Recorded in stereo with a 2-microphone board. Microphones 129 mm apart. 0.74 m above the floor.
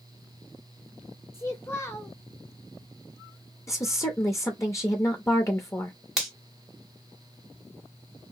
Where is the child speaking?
20° left (ahead or behind), 0.6 m.